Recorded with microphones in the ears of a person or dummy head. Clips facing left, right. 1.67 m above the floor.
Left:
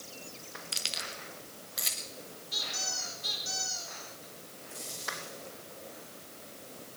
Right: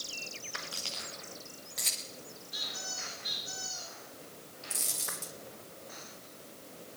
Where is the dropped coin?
45° right (ahead or behind), 1.6 m.